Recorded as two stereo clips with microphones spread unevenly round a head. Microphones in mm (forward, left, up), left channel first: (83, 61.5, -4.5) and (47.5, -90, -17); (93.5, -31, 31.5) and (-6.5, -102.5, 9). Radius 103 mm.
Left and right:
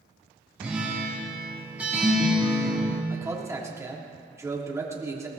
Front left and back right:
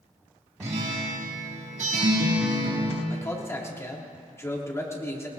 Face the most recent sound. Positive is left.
turn(degrees=-30)